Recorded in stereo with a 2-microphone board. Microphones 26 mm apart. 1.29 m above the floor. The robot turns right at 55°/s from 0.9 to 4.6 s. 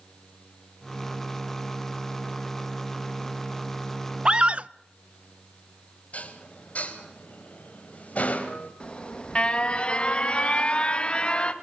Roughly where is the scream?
Right.